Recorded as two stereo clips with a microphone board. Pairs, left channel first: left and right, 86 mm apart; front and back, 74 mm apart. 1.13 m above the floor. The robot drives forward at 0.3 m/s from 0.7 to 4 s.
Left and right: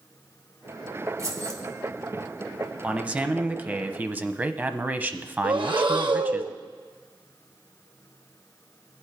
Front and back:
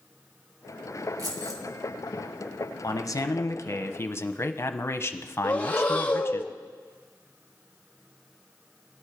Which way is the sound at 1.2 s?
140° right.